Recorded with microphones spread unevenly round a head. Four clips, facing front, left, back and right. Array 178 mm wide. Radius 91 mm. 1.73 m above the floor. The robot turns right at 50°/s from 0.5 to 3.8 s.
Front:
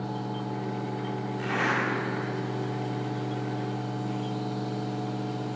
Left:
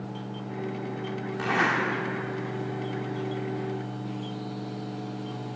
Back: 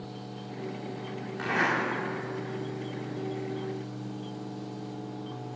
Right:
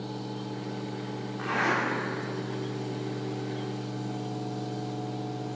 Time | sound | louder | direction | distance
1.4 | a zipper | left 2 dB, back 1 dB | 120° left | 3 m